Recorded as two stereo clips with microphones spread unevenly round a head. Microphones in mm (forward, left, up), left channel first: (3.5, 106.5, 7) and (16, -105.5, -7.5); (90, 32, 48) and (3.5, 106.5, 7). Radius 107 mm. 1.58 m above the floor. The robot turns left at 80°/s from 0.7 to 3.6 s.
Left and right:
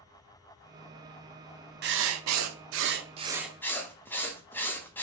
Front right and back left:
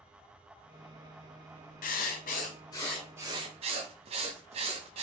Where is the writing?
40° right, 0.5 m; by 5.0 s 175° left, 0.5 m.